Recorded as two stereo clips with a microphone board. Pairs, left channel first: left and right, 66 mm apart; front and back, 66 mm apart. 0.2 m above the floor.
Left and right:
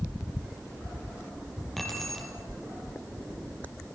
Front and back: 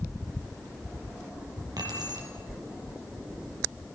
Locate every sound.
1.8 s keys jangling: straight behind, 3.5 m